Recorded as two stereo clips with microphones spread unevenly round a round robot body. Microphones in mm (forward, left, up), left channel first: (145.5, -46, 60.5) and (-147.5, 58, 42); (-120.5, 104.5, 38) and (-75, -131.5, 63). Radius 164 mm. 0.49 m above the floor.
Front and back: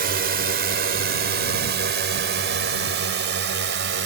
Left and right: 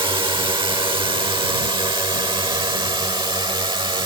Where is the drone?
150° right.